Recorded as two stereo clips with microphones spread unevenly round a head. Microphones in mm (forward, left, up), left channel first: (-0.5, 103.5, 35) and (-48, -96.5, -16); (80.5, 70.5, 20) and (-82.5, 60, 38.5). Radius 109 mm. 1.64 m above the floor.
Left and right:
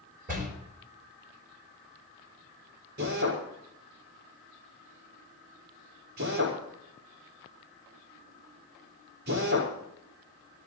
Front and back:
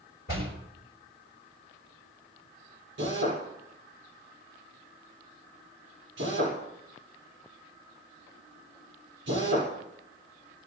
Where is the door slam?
45° right, 4.5 m.